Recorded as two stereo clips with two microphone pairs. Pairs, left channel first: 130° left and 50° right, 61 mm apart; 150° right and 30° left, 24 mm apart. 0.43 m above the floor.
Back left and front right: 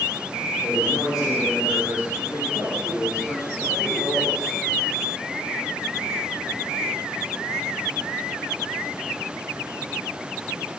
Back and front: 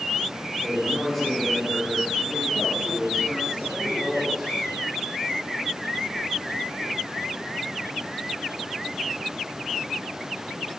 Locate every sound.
0.6 s a man speaking: 130° left, 6.5 m